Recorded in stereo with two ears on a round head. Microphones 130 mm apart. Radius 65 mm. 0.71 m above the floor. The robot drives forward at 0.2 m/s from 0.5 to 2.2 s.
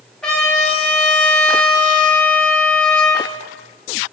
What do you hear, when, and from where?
0.2 s a trumpet: 5° left (ahead or behind), 0.6 m